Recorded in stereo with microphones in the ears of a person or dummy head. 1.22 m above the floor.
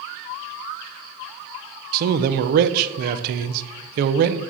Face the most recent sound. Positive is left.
turn(degrees=-55)  # may be behind; listen again after turning